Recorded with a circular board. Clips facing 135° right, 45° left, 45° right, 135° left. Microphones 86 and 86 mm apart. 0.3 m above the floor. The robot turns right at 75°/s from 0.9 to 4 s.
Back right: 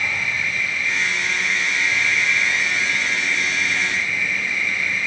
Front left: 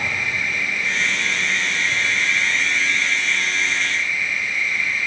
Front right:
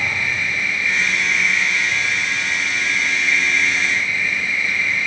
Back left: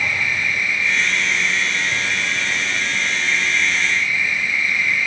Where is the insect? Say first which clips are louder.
Even, back left 1 dB; 20° left, 3.5 m; by 5.1 s 110° right, 3.5 m.